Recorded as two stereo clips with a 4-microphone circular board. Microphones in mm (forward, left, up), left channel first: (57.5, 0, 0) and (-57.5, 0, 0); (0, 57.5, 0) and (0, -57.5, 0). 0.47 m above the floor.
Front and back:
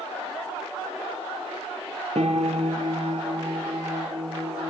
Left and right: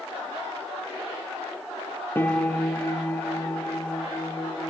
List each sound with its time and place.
2.1 s a piano: 160° left, 3.5 m